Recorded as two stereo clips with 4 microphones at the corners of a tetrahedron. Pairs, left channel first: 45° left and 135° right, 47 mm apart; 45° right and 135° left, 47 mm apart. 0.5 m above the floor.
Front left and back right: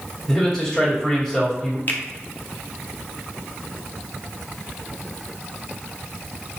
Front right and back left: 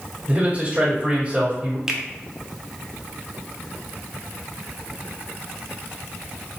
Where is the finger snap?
60° left, 0.6 m.